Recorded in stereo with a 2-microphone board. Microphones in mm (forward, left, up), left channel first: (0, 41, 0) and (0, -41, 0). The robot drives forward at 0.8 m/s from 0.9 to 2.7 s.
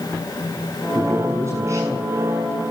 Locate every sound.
0.9 s a man speaking: 35° right (ahead or behind), 7.5 m; by 2.1 s 40° right (ahead or behind), 6.5 m